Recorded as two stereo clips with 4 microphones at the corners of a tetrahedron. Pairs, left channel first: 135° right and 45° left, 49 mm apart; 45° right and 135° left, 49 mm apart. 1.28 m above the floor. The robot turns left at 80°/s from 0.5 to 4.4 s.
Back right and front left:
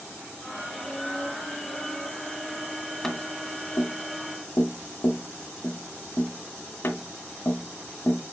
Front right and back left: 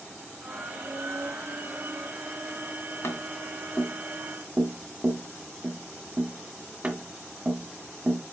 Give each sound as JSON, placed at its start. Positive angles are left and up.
{"t": 3.0, "sound": "tapping", "azimuth_deg": -60, "distance_m": 2.0}